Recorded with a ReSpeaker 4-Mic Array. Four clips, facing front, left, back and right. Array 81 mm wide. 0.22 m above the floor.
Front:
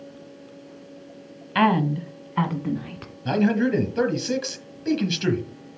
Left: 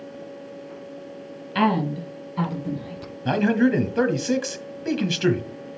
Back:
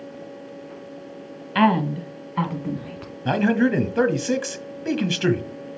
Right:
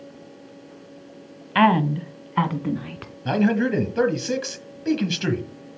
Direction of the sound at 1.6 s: 90° right.